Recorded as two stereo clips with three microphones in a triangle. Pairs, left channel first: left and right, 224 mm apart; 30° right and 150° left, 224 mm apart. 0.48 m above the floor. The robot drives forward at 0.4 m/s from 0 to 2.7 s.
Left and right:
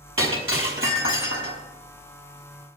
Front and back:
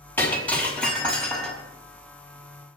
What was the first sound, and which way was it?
Breaking glass, 110° right.